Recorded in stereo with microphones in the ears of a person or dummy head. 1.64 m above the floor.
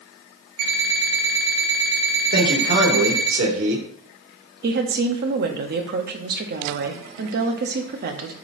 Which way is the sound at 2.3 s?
65° right (ahead or behind).